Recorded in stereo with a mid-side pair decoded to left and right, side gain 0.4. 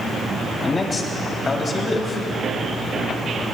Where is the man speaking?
35° left, 3.5 m.